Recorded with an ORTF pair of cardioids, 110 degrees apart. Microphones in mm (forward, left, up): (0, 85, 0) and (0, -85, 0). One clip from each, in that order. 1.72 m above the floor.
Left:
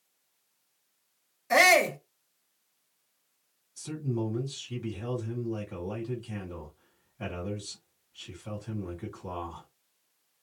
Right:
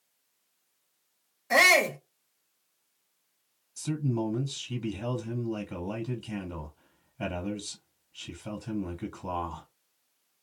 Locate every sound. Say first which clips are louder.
1.5 s a shout: even; straight ahead, 1.1 m
3.8 s a man speaking: right 2 dB; 40° right, 1.3 m